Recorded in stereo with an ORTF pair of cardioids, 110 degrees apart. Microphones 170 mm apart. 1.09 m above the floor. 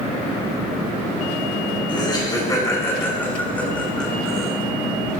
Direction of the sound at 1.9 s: 30° left.